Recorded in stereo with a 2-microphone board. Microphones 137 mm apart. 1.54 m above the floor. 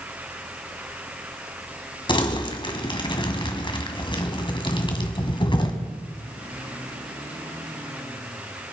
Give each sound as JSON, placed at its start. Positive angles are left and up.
{"t": 2.1, "sound": "crumpling", "side_deg": 35, "distance_m": 1.8}